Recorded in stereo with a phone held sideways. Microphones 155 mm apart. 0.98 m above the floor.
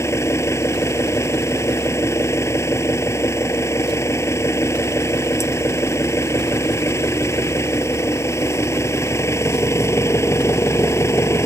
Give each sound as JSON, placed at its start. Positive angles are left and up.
{"t": 0.0, "sound": "an engine running", "side_deg": 15}